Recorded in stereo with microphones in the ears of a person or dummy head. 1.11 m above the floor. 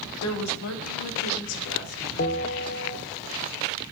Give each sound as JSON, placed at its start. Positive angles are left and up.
{"t": 0.2, "sound": "a woman speaking", "side_deg": 90, "distance_m": 1.5}
{"t": 2.2, "sound": "a bell", "side_deg": 50, "distance_m": 0.9}